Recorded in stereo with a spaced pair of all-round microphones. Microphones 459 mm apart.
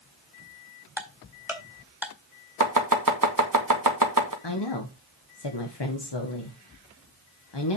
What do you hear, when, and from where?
1.0 s ticking: 5° right (ahead or behind), 1.7 m
2.6 s chopping: 40° right (ahead or behind), 1.5 m
4.4 s a woman speaking: 60° left (ahead or behind), 1.5 m